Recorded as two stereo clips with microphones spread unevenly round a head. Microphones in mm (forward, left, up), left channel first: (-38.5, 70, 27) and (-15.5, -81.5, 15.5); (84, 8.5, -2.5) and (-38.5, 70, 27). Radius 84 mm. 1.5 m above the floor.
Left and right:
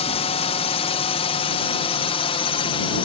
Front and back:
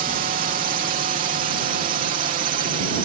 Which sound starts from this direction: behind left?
A drone, at 0.0 s.